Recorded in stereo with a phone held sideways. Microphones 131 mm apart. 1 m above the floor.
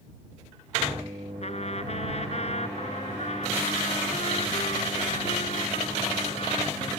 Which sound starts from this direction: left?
A trumpet, at 1.4 s.